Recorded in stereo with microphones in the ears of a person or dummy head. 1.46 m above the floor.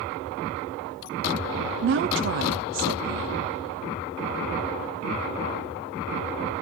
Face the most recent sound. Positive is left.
turn(degrees=-55)  # may be behind; listen again after turning